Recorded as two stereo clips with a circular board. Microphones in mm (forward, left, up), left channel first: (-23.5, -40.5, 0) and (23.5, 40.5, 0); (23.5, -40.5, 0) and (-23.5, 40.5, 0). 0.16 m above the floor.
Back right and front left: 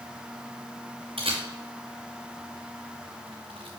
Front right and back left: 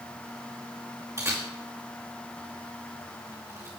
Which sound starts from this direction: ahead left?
A camera shutter, at 1.2 s.